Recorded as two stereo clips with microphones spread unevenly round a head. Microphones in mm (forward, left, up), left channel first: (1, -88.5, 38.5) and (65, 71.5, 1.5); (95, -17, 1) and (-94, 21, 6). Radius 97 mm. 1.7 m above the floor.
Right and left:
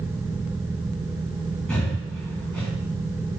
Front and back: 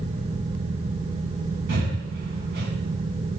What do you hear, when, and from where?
1.7 s breathing: 175° left, 2.5 m